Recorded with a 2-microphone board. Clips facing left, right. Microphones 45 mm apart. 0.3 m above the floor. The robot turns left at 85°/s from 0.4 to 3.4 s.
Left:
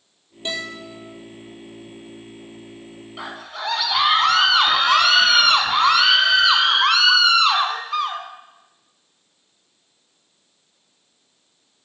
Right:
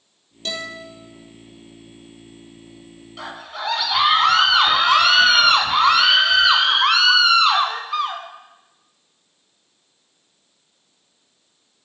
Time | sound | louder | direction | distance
0.5 | a guitar | left 1 dB | 165° left | 4 m
3.2 | a scream | right 1 dB | 15° left (ahead or behind) | 2 m